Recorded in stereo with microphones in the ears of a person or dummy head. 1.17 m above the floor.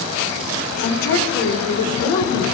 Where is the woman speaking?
65° left (ahead or behind), 2.5 m.